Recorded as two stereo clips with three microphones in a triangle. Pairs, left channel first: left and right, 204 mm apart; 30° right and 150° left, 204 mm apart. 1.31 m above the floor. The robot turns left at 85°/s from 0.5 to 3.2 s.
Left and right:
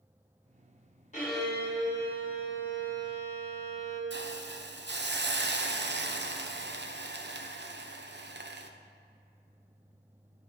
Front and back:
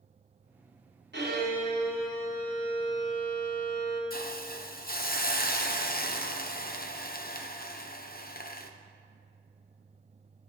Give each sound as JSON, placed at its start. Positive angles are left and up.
{"t": 1.1, "sound": "a violin", "azimuth_deg": 140, "distance_m": 2.5}
{"t": 4.1, "sound": "a hiss", "azimuth_deg": -70, "distance_m": 0.6}